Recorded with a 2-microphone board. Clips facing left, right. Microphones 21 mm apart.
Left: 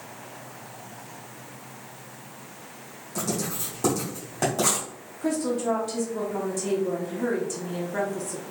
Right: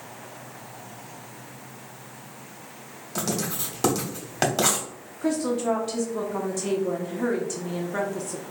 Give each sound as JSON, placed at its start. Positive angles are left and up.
{"t": 3.1, "sound": "writing", "side_deg": -65, "distance_m": 1.0}
{"t": 5.2, "sound": "a woman speaking", "side_deg": -20, "distance_m": 0.7}